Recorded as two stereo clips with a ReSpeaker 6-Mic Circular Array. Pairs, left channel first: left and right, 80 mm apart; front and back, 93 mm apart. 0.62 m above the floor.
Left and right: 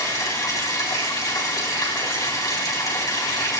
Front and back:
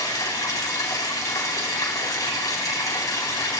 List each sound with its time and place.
0.0 s running water: 50° left, 4 m